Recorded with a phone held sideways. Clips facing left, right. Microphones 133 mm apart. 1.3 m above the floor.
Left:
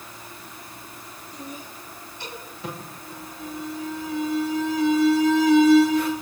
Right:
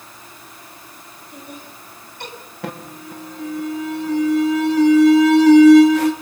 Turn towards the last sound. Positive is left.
turn(degrees=-80)